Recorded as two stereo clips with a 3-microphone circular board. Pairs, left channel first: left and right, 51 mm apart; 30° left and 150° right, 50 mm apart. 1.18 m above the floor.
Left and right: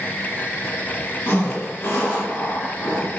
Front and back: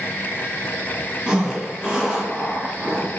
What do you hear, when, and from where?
1.3 s a zipper: 130° left, 1.3 m